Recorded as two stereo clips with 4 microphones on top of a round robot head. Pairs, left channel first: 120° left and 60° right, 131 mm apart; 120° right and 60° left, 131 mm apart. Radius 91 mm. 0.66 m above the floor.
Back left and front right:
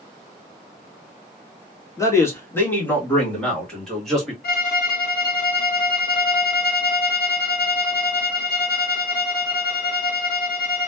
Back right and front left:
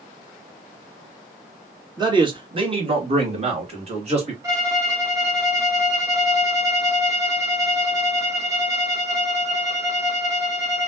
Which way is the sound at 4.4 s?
130° left.